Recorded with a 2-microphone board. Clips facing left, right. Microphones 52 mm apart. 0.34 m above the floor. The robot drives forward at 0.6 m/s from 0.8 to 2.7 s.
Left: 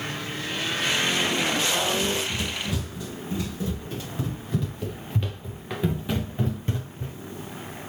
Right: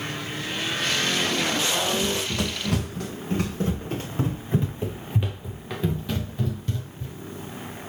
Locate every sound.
1.9 s running footsteps: 75° right (ahead or behind), 4.5 m; by 7.2 s 40° left (ahead or behind), 3 m